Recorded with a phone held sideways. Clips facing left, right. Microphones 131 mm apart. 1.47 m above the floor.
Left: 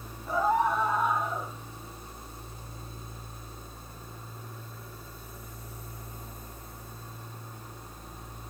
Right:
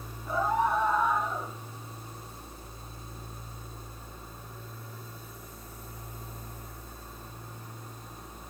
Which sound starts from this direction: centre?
A scream, at 0.3 s.